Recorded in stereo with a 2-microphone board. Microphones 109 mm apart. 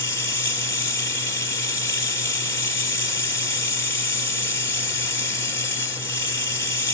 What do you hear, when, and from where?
0.0 s running water: 30° left (ahead or behind), 3 m